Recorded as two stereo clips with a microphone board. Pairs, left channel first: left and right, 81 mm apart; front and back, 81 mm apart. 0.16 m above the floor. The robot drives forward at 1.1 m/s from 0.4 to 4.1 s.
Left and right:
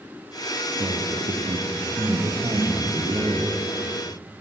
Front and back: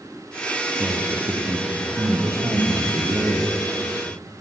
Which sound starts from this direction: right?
A man speaking, at 0.8 s.